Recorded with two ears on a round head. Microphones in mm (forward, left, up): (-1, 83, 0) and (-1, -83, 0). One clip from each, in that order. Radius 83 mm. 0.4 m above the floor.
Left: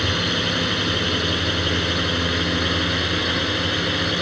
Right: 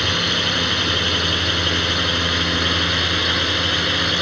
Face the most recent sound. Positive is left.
turn(degrees=-35)  # may be behind; listen again after turning